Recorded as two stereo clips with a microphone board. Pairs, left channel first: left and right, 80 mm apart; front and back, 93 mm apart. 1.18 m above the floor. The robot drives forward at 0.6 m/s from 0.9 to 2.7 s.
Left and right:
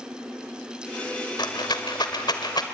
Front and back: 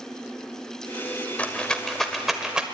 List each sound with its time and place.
1.4 s a rattle: 75° left, 1.8 m; by 2.6 s 100° left, 1.8 m